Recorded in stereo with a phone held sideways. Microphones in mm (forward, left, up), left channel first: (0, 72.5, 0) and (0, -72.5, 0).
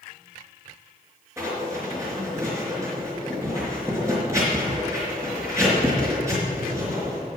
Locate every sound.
1.4 s writing: 20° right (ahead or behind), 4.5 m